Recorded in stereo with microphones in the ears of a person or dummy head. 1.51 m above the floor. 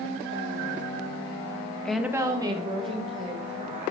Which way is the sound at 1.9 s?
Centre (ahead or behind).